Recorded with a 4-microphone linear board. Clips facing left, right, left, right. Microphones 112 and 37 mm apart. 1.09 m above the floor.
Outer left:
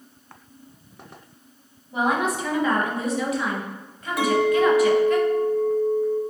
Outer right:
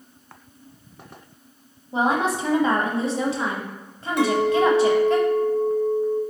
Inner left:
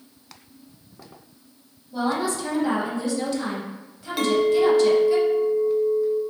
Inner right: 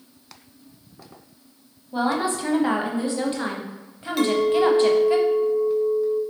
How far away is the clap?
I don't hear a clap.